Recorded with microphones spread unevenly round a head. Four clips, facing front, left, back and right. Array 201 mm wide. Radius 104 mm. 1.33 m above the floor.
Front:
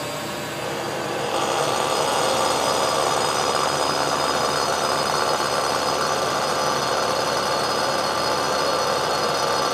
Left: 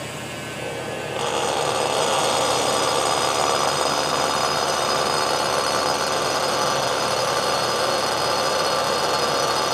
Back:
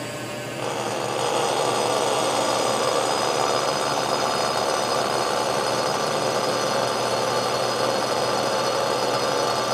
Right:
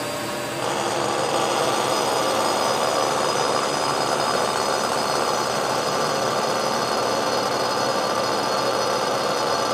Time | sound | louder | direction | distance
0.0 | a drone | right 5 dB, front 2 dB | 70° right | ?